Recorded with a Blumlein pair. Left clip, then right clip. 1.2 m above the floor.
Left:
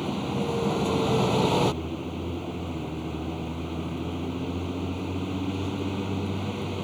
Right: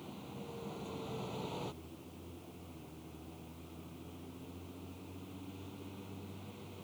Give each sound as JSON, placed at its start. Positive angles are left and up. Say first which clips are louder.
{"t": 0.0, "sound": "a vehicle", "louder": "left 19 dB", "azimuth_deg": 40}